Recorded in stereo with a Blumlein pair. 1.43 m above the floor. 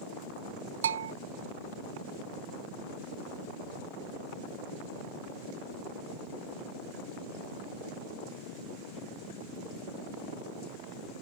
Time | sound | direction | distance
0.8 | a bell | 65° right | ?